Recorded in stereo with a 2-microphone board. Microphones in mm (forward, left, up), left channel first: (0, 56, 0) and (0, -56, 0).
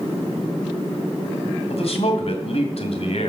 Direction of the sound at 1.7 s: 60° left (ahead or behind).